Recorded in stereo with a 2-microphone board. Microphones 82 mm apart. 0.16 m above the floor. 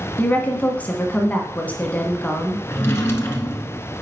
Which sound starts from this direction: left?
A drawer, at 2.7 s.